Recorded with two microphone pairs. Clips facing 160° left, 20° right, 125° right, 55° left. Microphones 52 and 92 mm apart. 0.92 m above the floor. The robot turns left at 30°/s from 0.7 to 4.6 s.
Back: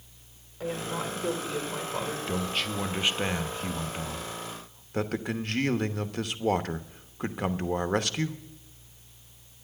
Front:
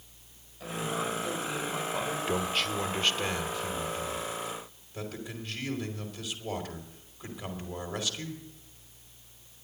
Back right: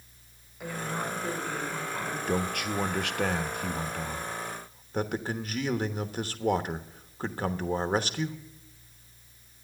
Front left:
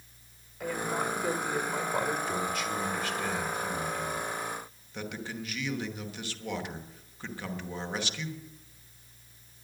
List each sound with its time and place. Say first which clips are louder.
0.6 s a woman speaking: back 1 dB, front left 2 dB; 150° left, 3 m; by 2.2 s 105° left, 3 m
2.3 s a man speaking: front 2 dB, back right 2 dB; 100° right, 1.0 m; by 8.4 s 170° right, 1.0 m